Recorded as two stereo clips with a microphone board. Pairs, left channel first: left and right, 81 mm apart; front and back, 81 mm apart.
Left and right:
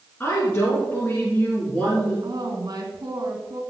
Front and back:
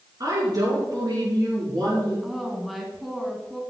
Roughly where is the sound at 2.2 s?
Right.